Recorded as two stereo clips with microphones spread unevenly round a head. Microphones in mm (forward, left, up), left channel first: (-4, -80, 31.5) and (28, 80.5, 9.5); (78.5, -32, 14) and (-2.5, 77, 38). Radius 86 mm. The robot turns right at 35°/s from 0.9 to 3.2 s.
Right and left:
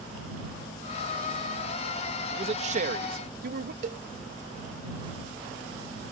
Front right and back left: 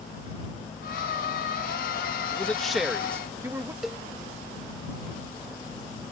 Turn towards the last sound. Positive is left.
turn(degrees=60)